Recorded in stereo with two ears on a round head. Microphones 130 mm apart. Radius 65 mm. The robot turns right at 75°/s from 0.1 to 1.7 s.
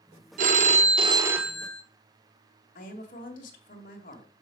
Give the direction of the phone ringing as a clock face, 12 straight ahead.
3 o'clock.